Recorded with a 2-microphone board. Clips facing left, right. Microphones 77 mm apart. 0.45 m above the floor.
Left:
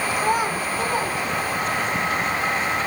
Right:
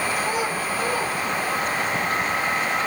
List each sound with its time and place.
0.2 s a child speaking: 55° left (ahead or behind), 3.5 m; by 1.9 s 25° left (ahead or behind), 5 m